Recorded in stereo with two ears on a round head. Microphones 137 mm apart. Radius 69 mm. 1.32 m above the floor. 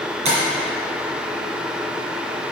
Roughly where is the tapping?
Right.